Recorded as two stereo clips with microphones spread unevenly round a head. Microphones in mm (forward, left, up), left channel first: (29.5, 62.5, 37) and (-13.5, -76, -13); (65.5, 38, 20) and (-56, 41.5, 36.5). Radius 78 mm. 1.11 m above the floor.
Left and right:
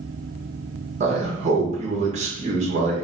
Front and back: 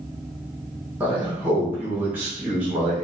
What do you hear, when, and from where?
1.0 s a man speaking: 100° right, 1.4 m